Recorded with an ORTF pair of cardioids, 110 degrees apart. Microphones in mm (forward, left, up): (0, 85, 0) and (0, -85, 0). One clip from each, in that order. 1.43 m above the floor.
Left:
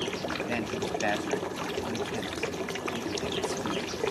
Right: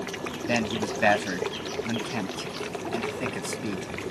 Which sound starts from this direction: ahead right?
A man speaking, at 0.5 s.